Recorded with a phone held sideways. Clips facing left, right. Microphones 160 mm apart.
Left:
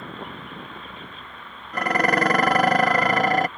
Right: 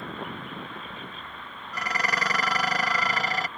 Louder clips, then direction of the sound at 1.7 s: Left 10 dB; 55° left (ahead or behind).